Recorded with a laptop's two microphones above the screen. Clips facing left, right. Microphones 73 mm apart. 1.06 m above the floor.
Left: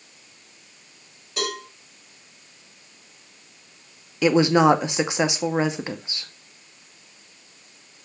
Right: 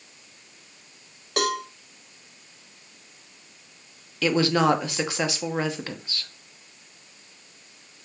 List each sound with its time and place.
1.4 s a cowbell: 85° right, 2 m
4.2 s a woman speaking: 20° left (ahead or behind), 0.8 m